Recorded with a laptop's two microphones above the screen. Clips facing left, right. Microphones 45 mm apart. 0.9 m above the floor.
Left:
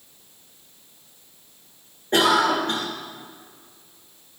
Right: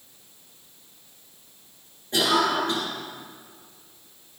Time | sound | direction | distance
2.1 | a cough | 50° left (ahead or behind) | 1.3 m